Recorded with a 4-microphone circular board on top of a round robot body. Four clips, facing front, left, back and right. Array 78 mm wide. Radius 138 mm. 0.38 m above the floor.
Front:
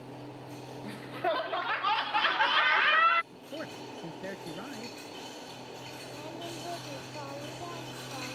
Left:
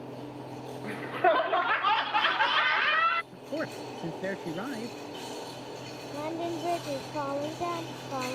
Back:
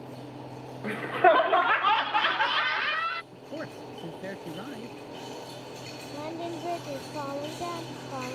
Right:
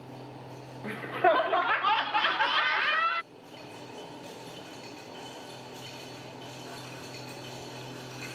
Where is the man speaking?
95° left.